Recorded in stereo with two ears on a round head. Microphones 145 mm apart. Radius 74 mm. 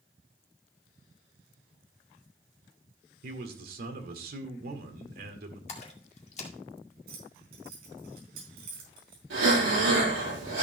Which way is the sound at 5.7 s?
45° left (ahead or behind).